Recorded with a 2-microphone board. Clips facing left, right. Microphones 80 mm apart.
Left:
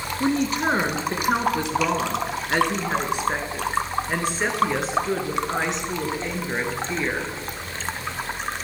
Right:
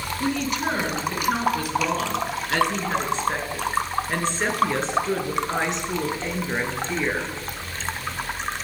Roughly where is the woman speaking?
Left.